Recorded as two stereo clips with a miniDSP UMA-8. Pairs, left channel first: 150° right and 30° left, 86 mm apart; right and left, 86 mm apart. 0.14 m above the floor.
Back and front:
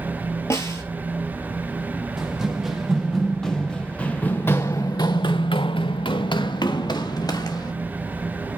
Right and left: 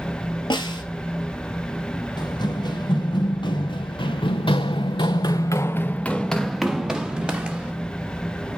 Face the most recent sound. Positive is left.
turn(degrees=165)